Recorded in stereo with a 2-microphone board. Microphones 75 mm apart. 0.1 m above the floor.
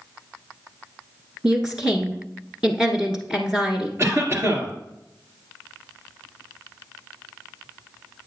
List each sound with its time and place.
1.4 s a woman speaking: 10° right (ahead or behind), 1.2 m
4.0 s a cough: 35° right (ahead or behind), 2 m